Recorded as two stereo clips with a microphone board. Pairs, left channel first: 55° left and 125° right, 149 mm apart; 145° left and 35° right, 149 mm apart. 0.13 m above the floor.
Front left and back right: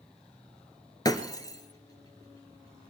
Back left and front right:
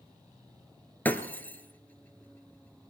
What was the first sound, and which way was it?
Breaking glass, 80° left.